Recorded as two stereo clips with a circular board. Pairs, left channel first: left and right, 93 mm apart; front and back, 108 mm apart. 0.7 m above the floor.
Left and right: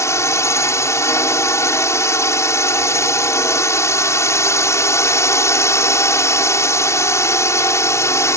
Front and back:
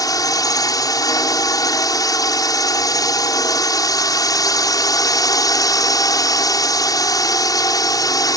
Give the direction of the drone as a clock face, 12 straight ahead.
11 o'clock.